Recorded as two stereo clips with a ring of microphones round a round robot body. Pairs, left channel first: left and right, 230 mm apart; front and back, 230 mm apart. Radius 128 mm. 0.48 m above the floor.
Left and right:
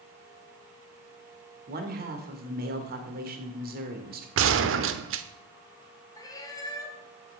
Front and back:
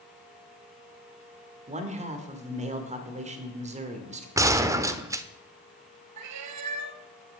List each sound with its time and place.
1.7 s a man speaking: 130° right, 1.9 m
4.4 s a gunshot: 105° right, 0.9 m
6.2 s a cat meowing: 165° left, 1.1 m